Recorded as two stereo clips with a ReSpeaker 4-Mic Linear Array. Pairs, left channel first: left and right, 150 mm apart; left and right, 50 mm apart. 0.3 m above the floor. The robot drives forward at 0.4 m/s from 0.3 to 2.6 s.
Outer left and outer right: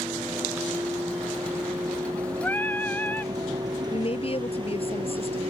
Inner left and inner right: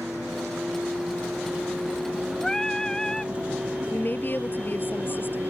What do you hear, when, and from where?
0.0 s a vehicle: 15° right (ahead or behind); by 5.5 s 40° right (ahead or behind)
2.4 s singing: 15° left (ahead or behind)
3.9 s a woman speaking: 45° left (ahead or behind)